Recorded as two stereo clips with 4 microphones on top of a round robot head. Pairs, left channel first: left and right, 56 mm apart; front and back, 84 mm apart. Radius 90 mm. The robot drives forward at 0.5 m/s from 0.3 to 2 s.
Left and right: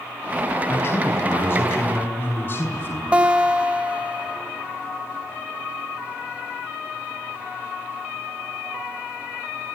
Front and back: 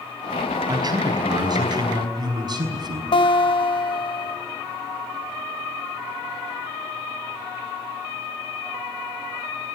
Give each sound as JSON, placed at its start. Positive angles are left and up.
{"t": 0.7, "sound": "a man speaking", "azimuth_deg": 140, "distance_m": 4.5}
{"t": 3.1, "sound": "a guitar", "azimuth_deg": -20, "distance_m": 1.7}